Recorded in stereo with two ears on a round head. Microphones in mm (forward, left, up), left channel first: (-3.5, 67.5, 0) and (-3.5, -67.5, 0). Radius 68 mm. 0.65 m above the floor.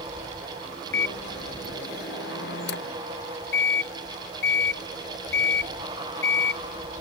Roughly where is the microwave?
Left.